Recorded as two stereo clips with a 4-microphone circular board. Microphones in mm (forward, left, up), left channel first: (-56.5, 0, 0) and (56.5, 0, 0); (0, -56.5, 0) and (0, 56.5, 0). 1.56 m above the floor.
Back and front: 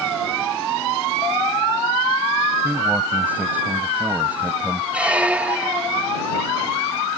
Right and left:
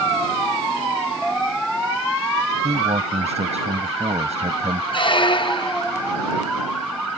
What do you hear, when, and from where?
2.6 s a man speaking: 75° left
4.9 s a squeak: 75° right